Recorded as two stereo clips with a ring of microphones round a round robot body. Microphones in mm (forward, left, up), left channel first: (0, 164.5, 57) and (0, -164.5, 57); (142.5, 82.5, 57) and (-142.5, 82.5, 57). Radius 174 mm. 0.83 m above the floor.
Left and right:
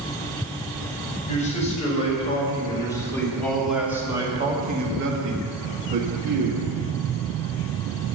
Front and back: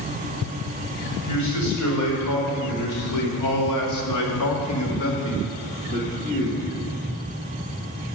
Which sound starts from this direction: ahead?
A man speaking, at 1.3 s.